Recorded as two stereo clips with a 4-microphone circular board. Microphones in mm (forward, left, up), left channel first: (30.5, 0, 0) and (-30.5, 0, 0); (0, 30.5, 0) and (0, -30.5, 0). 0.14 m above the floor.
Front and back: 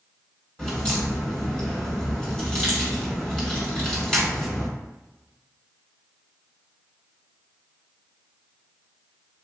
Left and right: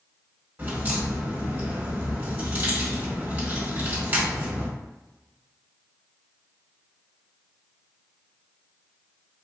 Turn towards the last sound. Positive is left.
turn(degrees=-65)